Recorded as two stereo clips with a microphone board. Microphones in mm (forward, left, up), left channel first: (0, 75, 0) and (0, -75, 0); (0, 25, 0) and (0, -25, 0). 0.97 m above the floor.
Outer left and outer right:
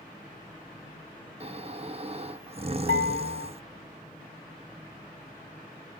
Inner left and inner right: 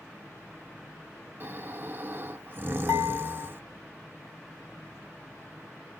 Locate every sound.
1.4 s snoring: 40° right (ahead or behind), 0.5 m
2.9 s dishes clattering: 70° left (ahead or behind), 4 m